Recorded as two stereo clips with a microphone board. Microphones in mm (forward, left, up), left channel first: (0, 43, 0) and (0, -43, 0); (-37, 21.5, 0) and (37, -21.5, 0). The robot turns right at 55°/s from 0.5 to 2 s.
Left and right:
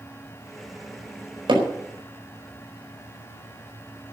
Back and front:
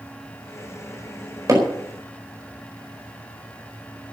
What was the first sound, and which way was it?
Hammering, 80° right.